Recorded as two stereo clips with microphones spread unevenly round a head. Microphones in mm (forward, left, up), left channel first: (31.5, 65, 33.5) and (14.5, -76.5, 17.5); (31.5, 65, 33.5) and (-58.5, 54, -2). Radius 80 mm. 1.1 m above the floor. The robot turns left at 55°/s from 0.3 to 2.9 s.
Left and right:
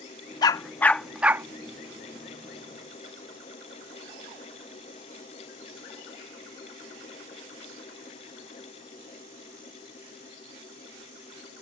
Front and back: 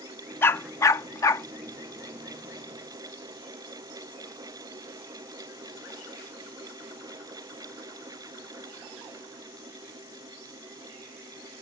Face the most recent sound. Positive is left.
turn(degrees=-100)